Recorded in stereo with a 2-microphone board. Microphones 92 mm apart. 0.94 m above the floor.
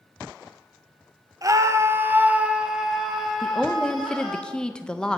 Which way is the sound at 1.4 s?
40° right (ahead or behind).